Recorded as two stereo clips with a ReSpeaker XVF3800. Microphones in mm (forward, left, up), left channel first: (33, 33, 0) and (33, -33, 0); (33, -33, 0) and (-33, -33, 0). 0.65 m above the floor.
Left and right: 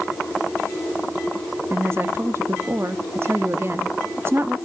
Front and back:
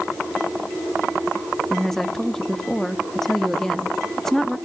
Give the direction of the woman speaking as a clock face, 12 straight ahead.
3 o'clock.